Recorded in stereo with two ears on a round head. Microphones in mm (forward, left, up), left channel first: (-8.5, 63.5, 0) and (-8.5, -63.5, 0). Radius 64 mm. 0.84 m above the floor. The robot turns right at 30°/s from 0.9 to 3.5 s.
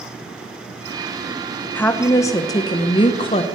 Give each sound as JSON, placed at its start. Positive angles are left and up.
{"t": 1.8, "sound": "a woman speaking", "azimuth_deg": 20, "distance_m": 0.7}